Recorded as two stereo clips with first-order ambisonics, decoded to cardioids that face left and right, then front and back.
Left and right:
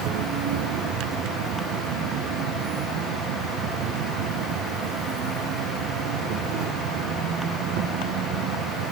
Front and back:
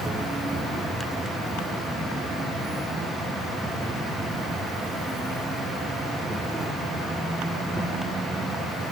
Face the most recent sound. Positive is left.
turn(degrees=-95)